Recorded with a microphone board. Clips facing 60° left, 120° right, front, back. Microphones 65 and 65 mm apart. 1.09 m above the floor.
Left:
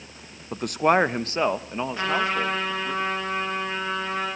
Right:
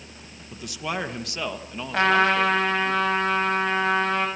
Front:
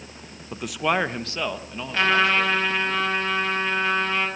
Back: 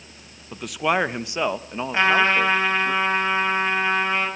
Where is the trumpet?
115° right, 6.5 m.